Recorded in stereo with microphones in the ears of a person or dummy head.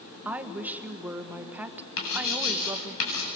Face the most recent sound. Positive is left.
turn(degrees=85)